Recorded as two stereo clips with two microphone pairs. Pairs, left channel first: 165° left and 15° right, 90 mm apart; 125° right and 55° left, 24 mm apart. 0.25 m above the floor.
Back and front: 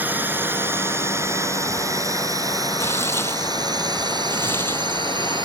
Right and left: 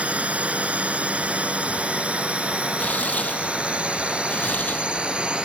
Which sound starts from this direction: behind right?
Tearing paper, at 2.8 s.